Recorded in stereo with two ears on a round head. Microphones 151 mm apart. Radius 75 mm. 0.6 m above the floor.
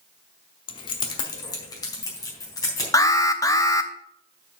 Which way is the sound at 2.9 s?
20° left (ahead or behind).